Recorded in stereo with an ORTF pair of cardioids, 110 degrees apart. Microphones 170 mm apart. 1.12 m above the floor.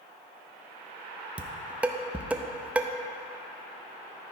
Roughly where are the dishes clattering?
Ahead.